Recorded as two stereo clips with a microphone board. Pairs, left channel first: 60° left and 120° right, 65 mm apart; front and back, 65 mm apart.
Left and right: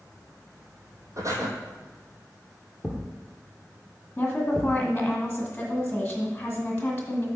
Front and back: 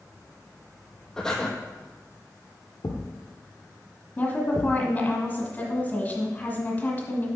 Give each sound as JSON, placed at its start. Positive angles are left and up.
{"t": 1.2, "sound": "breathing", "azimuth_deg": -80, "distance_m": 1.5}
{"t": 2.8, "sound": "a thud", "azimuth_deg": -30, "distance_m": 1.5}
{"t": 4.2, "sound": "a woman speaking", "azimuth_deg": 15, "distance_m": 1.5}